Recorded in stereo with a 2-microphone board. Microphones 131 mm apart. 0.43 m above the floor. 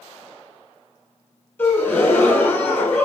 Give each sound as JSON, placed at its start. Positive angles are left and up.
{"t": 1.6, "sound": "a gasp", "side_deg": 15, "distance_m": 1.3}